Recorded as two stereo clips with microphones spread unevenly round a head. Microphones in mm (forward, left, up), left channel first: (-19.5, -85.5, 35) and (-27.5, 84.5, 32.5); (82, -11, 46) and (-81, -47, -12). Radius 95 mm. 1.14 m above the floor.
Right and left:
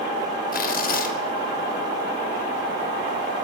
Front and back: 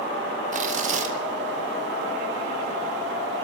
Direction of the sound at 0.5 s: 125° right.